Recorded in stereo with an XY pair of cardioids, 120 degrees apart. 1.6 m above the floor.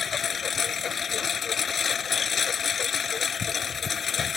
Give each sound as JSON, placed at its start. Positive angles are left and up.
{"t": 0.0, "sound": "a lawn mower", "azimuth_deg": 35}